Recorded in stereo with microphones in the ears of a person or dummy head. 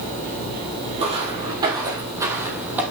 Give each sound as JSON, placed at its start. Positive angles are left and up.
{"t": 1.0, "sound": "footsteps", "side_deg": -35, "distance_m": 3.0}